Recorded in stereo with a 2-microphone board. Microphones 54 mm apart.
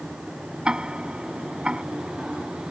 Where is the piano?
No piano in this recording.